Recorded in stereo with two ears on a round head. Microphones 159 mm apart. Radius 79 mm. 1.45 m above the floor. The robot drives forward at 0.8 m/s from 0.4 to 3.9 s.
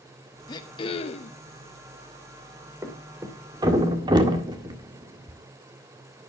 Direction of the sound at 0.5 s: 25° left (ahead or behind).